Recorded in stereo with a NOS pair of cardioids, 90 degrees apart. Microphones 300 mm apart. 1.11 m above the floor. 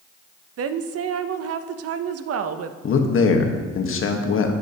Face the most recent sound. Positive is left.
turn(degrees=45)